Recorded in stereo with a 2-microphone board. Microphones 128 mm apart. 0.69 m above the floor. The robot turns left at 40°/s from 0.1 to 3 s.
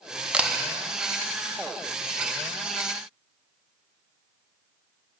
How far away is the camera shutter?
About 0.5 m.